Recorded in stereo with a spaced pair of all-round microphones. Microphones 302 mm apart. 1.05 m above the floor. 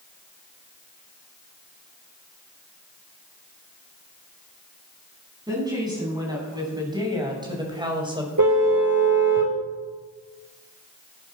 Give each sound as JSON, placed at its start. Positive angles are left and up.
{"t": 5.5, "sound": "a woman speaking", "side_deg": -10, "distance_m": 7.5}
{"t": 8.4, "sound": "a car horn", "side_deg": -70, "distance_m": 2.5}